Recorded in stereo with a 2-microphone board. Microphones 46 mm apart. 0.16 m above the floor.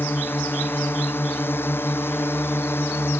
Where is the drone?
55° left (ahead or behind); by 3.2 s 65° left (ahead or behind).